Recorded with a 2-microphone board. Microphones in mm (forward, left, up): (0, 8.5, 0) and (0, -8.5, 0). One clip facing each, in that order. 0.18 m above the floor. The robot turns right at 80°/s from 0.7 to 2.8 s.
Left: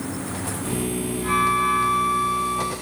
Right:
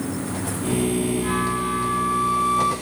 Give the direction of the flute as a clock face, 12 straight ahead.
9 o'clock.